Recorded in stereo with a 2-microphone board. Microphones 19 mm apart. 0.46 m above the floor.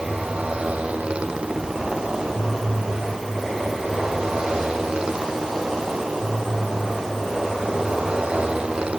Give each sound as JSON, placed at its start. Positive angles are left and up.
{"t": 0.0, "sound": "a motorcycle", "side_deg": -75}